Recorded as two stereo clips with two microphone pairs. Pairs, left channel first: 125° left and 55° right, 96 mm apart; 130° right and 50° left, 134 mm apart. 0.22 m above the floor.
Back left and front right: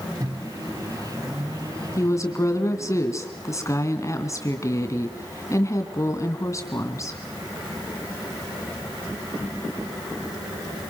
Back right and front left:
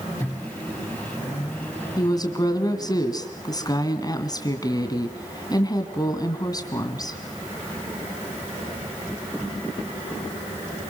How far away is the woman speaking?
About 2.5 m.